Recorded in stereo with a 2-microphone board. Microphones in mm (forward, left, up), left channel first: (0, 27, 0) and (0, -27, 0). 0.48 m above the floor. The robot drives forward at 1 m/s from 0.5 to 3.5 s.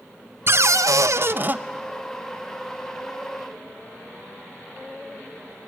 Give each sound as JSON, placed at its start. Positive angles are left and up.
{"t": 0.5, "sound": "a cupboard door", "side_deg": -50, "distance_m": 0.6}